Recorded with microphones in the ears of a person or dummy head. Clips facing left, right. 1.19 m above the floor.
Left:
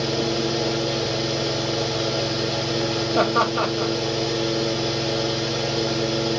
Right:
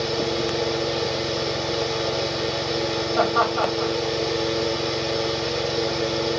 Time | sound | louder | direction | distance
0.0 | a fan | left 1 dB | 10° left (ahead or behind) | 1.1 m
3.1 | laughter | even | 35° left (ahead or behind) | 0.9 m